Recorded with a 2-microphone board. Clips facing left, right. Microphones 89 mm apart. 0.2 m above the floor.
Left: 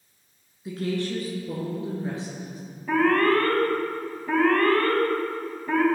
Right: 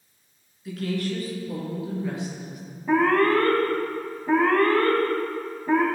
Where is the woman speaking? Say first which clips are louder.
Even; 25° left (ahead or behind), 2 m; by 2.6 s 35° left (ahead or behind), 3.5 m.